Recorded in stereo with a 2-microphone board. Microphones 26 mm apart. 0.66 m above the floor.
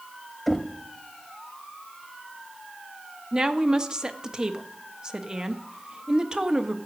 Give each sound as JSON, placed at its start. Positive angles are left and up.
{"t": 0.5, "sound": "knocking", "side_deg": 5, "distance_m": 0.6}
{"t": 3.3, "sound": "a woman speaking", "side_deg": -25, "distance_m": 0.6}